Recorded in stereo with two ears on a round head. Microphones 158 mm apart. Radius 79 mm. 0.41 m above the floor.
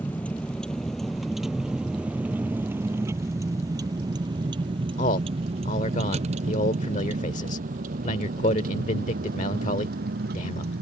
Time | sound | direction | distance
0.0 | a vehicle | 10° left (ahead or behind) | ?
5.0 | a man speaking | 45° left (ahead or behind) | ?